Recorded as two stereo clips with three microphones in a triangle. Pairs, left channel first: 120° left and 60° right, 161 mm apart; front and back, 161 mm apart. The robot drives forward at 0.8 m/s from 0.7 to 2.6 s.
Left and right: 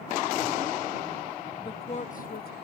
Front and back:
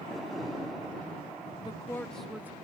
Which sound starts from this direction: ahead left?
A woman speaking, at 1.6 s.